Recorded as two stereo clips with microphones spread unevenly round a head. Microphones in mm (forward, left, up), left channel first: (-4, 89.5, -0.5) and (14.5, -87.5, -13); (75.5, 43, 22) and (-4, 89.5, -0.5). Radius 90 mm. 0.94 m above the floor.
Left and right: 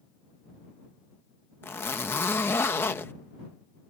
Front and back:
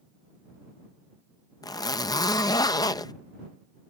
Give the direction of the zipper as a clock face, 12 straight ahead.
11 o'clock.